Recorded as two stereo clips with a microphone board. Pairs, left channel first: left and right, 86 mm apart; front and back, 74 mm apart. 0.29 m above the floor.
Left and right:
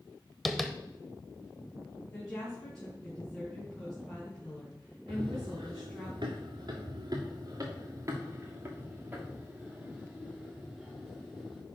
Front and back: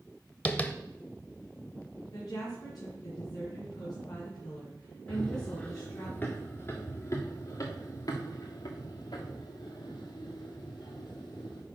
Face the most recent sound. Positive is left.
turn(degrees=0)